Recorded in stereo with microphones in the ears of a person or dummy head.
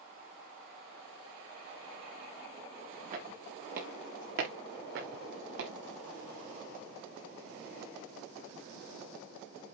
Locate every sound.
3.1 s footsteps: 45° right (ahead or behind), 4 m; by 5.7 s 70° right (ahead or behind), 3.5 m